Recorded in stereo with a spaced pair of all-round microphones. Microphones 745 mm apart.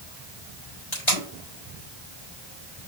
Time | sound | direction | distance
0.9 | tape being pulled | 60° left (ahead or behind) | 4 m